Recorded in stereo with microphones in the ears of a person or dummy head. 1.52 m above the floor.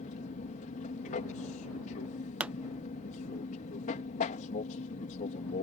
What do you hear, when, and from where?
0.0 s an aircraft: 35° left (ahead or behind)
2.4 s a pop: 10° right (ahead or behind)